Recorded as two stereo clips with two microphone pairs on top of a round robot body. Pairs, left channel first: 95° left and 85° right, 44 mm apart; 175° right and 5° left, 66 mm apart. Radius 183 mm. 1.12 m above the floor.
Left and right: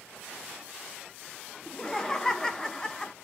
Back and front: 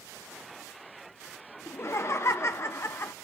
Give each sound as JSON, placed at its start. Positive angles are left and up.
{"t": 1.7, "sound": "laughter", "azimuth_deg": 170, "distance_m": 0.5}